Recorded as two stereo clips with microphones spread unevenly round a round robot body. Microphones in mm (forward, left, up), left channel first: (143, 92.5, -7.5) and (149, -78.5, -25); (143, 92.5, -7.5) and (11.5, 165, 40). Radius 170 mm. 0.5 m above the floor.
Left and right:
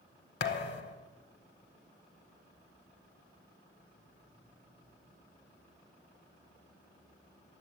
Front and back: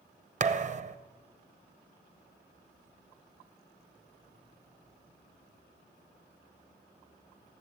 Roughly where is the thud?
Behind left.